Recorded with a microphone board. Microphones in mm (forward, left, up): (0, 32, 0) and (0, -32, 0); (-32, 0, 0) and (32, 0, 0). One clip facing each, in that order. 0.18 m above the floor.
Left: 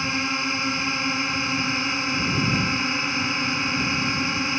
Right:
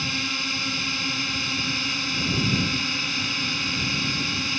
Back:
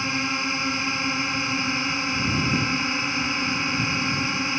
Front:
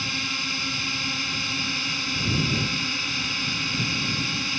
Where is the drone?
135° left.